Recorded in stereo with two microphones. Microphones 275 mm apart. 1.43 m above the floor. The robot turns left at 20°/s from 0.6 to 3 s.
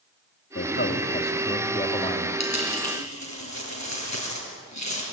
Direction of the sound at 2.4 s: 75° left (ahead or behind).